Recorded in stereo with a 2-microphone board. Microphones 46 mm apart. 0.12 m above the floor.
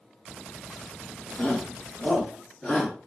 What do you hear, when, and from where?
1.4 s a shout: 20° left (ahead or behind), 1.9 m